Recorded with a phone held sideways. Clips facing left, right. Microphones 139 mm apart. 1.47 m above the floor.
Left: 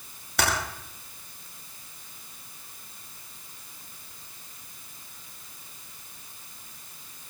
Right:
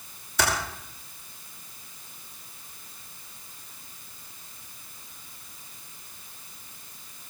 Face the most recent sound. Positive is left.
turn(degrees=75)  # may be behind; listen again after turning